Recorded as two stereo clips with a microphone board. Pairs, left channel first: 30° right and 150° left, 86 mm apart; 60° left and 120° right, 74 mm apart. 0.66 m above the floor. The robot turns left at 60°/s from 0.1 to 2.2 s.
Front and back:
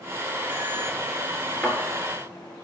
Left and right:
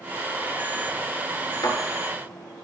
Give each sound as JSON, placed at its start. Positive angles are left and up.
{"t": 1.6, "sound": "a thud", "azimuth_deg": 45, "distance_m": 3.5}